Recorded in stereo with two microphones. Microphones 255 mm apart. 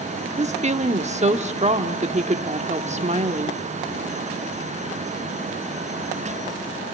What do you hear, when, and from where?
0.4 s a woman speaking: 25° right (ahead or behind), 1.0 m